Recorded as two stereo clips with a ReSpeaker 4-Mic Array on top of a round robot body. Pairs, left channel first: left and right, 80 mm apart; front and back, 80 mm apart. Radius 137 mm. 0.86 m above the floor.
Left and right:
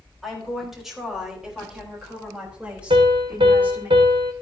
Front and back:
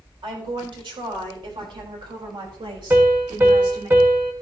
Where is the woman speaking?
Straight behind, 4.5 m; by 3.9 s 160° right, 3 m.